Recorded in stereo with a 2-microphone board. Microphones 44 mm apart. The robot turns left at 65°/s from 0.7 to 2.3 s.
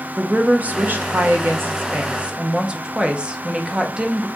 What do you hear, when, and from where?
0.2 s a woman speaking: 45° right, 0.8 m; by 4.3 s 150° right, 0.8 m